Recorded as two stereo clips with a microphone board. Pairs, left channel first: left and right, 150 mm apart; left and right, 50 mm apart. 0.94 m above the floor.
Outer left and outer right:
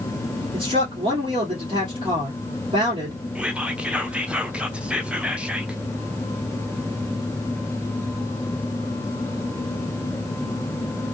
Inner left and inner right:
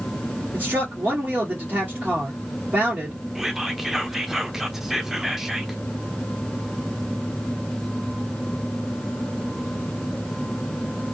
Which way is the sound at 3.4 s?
10° right (ahead or behind).